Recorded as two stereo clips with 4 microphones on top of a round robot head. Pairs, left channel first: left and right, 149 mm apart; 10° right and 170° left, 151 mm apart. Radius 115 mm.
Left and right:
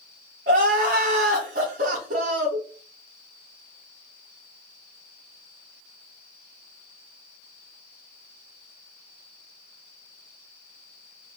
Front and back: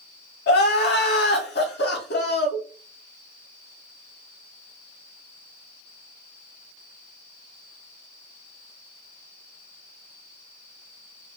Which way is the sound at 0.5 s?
40° right.